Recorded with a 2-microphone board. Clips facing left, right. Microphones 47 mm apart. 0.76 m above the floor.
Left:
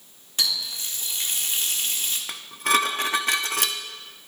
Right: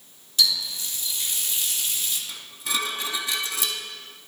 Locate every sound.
0.4 s a running tap: 40° left (ahead or behind), 1.1 m
2.3 s dishes clattering: 55° left (ahead or behind), 0.6 m